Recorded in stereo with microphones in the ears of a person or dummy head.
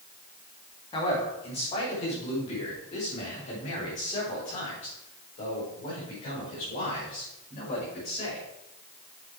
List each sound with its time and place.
0.9 s a man speaking: 30° left (ahead or behind), 2.5 m; by 8.4 s 40° left (ahead or behind), 6 m